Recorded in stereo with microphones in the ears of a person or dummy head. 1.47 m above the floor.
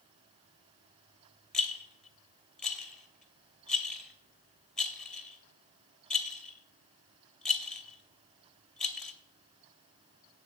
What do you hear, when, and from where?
1.5 s a rattle: centre (ahead or behind), 1.1 m